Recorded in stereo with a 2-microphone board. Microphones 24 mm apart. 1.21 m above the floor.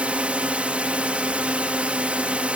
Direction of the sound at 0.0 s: 60° right (ahead or behind).